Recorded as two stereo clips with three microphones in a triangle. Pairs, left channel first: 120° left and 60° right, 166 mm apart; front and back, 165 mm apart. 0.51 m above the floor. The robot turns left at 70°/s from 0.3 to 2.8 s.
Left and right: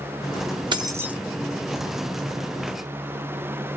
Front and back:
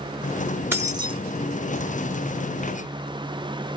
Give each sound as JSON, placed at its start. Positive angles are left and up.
{"t": 0.7, "sound": "keys jangling", "azimuth_deg": -110, "distance_m": 0.6}